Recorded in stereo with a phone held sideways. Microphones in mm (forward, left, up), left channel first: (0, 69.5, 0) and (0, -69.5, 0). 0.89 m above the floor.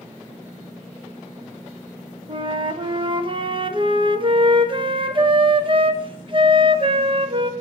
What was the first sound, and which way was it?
A flute, 35° right (ahead or behind).